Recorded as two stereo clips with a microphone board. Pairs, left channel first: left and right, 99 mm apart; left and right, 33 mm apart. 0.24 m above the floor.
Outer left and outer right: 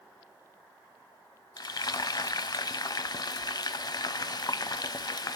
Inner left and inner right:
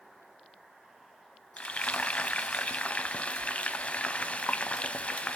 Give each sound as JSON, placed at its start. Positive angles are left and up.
{"t": 1.6, "sound": "frying", "side_deg": 45, "distance_m": 0.5}